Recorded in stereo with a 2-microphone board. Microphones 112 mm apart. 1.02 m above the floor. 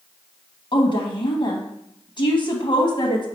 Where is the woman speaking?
50° left (ahead or behind), 0.6 m.